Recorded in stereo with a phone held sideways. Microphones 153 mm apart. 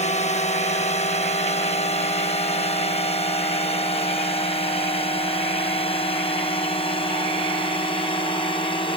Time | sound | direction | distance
0.0 | a drone | 45° left (ahead or behind) | ?